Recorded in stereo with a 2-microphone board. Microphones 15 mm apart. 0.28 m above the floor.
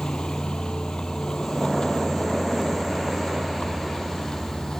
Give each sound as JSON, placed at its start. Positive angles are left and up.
{"t": 0.0, "sound": "a vehicle", "side_deg": 85}